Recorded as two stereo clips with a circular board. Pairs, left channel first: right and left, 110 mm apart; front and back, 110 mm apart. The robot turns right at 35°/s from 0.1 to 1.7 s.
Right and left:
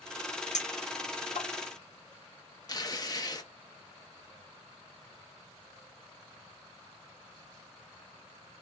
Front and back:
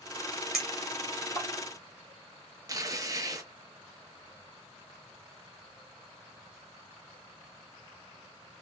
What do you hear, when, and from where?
0.5 s a clink: 95° right, 1.1 m; by 1.5 s 60° right, 1.1 m
2.7 s tearing paper: 135° right, 0.7 m